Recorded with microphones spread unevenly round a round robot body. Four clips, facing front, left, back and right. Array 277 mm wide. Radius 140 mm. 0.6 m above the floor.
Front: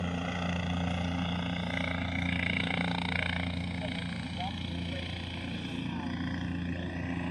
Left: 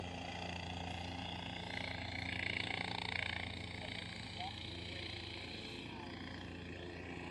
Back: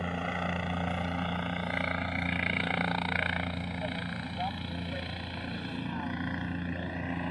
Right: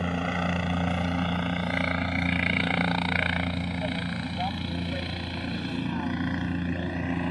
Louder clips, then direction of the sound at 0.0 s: Right 18 dB, back 1 dB; 90° right.